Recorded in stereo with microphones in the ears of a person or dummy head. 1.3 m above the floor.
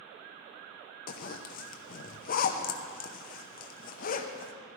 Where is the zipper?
45° left (ahead or behind), 0.8 m.